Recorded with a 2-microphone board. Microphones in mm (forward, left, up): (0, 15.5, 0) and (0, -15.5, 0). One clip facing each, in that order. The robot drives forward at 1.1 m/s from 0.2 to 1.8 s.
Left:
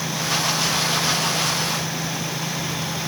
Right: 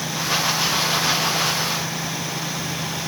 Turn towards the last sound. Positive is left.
No sound to turn to.